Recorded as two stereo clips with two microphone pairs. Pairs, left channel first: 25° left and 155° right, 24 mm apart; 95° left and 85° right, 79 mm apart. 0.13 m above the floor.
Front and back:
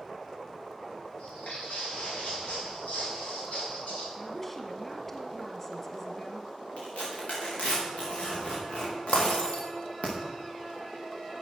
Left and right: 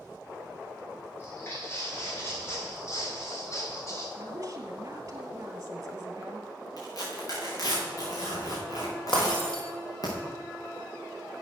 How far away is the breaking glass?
About 3 m.